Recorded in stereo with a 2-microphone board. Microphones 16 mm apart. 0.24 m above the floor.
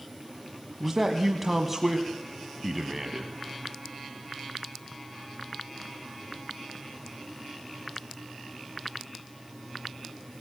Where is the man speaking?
10° right (ahead or behind), 1.4 m.